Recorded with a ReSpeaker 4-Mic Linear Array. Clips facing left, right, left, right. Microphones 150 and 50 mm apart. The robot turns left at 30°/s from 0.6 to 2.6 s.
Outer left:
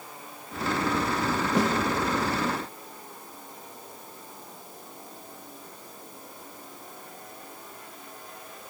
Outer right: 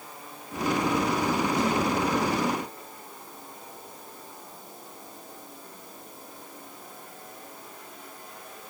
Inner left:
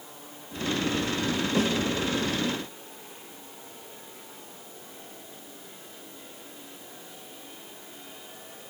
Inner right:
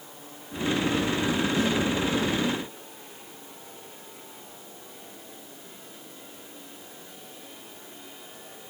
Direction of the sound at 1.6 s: 80° left.